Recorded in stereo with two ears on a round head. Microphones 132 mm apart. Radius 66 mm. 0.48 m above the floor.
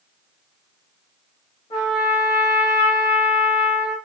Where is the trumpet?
35° left (ahead or behind), 1.4 m.